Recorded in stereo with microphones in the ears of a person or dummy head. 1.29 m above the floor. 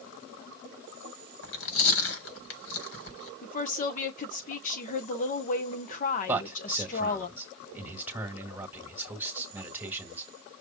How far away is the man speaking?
About 1.8 m.